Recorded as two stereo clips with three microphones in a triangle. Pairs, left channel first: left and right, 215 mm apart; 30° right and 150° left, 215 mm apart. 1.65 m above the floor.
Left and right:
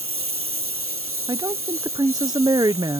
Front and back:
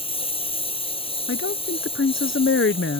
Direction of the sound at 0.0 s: 95° right.